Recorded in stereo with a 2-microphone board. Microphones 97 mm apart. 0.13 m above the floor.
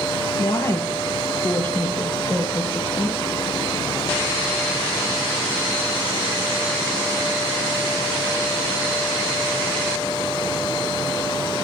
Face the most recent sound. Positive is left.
turn(degrees=10)  # may be behind; listen again after turning